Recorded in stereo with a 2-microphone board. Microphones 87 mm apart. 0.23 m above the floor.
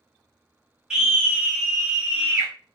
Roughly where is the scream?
Centre.